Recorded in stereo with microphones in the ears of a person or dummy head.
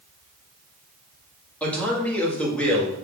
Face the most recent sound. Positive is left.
turn(degrees=10)  # may be behind; listen again after turning